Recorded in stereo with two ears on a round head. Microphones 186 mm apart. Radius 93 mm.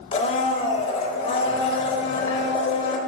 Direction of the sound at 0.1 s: 30° left (ahead or behind).